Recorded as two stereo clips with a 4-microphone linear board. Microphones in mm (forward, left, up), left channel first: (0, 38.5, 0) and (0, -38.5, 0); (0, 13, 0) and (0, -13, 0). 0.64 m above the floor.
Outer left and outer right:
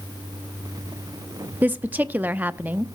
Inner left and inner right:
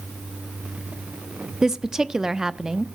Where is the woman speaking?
25° right (ahead or behind), 0.6 m.